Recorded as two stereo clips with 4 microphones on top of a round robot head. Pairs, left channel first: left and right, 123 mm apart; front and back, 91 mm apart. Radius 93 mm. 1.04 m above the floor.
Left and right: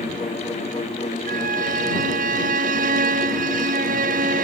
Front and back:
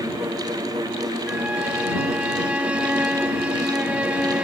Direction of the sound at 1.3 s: 95° right.